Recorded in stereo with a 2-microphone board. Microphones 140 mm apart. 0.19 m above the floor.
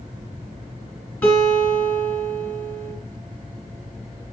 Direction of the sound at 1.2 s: 10° left (ahead or behind).